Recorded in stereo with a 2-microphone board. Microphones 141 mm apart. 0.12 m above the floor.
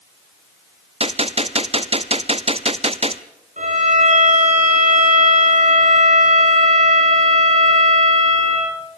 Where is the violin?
60° right (ahead or behind), 7 m.